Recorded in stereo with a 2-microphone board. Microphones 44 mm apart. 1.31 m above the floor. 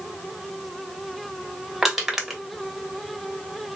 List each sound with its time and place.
1.8 s crushing: 5° right (ahead or behind), 1.0 m